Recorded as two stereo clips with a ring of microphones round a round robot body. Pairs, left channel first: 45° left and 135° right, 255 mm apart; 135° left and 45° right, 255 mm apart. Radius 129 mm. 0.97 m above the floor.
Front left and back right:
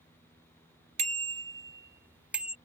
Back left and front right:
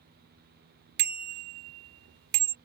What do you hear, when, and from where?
1.0 s a bicycle bell: 70° right; by 2.5 s 50° right